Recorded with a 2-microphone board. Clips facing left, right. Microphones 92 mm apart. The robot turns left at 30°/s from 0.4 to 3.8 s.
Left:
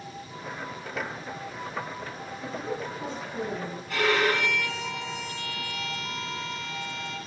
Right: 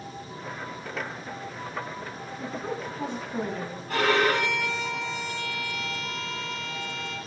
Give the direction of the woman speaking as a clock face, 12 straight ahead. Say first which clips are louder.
Even; 3 o'clock.